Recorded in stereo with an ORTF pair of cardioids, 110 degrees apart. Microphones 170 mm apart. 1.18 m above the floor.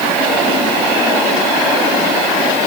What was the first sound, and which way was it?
Only background noise.